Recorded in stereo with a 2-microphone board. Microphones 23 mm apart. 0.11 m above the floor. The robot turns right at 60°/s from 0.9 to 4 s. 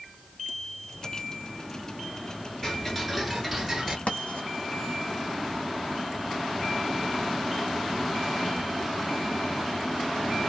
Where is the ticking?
145° left, 1.3 m; by 4.0 s 135° right, 1.3 m.